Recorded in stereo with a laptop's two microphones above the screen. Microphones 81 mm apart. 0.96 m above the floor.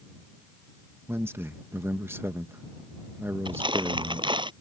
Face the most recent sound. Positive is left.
turn(degrees=-75)  # may be behind; listen again after turning